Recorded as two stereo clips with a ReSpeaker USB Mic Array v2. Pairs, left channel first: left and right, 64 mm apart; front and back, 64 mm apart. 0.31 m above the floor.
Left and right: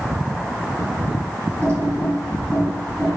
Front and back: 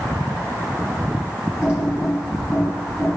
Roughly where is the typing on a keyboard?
Behind right.